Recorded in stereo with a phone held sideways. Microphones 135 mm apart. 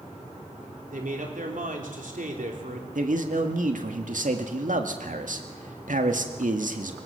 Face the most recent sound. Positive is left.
turn(degrees=-80)